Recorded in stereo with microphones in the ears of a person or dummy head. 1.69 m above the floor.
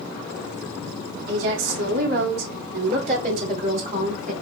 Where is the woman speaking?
70° right (ahead or behind), 3 m; by 4.3 s 45° right (ahead or behind), 4 m.